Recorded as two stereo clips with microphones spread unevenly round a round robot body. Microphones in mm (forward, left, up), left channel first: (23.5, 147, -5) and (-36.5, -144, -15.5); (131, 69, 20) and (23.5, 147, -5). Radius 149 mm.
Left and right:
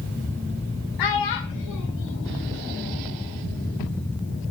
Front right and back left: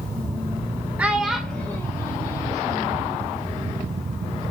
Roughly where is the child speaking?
Left.